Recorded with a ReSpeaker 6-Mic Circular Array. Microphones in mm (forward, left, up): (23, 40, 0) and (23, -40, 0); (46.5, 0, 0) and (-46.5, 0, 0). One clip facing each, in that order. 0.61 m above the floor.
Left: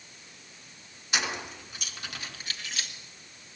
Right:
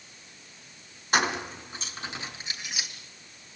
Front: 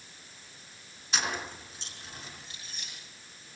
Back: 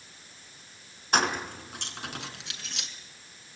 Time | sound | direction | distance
1.1 | keys jangling | 140° right | 4 m